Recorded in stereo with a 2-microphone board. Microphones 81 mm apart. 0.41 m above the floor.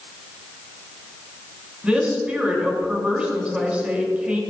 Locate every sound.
1.8 s a woman speaking: 15° right (ahead or behind), 3.5 m